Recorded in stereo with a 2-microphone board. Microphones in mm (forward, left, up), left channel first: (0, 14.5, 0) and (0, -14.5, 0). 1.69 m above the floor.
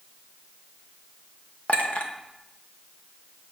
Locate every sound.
1.7 s a clink: 55° left (ahead or behind), 1.0 m